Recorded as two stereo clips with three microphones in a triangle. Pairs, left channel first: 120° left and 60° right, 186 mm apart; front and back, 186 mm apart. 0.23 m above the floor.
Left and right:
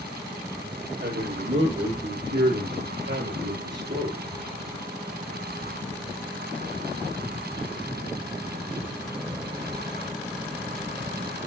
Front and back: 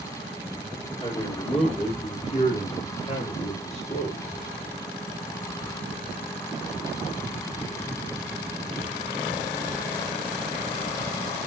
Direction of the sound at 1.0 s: 60° right.